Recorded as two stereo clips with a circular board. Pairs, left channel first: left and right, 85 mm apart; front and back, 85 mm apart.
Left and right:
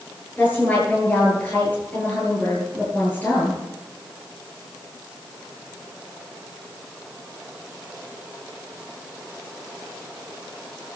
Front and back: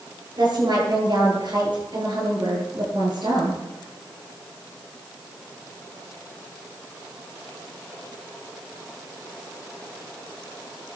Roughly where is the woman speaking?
Behind.